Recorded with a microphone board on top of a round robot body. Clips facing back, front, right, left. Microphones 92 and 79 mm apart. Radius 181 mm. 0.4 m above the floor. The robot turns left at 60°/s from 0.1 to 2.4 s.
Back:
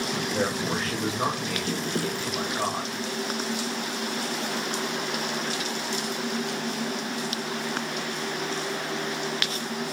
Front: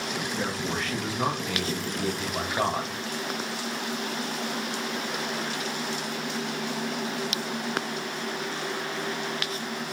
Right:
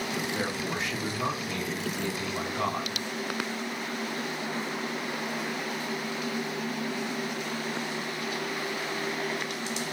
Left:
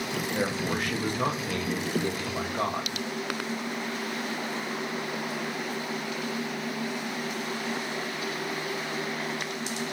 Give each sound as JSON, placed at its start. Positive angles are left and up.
{"t": 0.3, "sound": "a man speaking", "azimuth_deg": 155, "distance_m": 3.5}